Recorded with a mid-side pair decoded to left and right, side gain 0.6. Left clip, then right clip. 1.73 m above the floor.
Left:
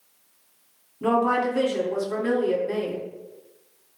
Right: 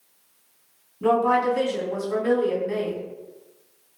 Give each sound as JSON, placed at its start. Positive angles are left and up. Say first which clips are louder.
{"t": 1.0, "sound": "a woman speaking", "louder": "right 2 dB", "azimuth_deg": 5, "distance_m": 1.4}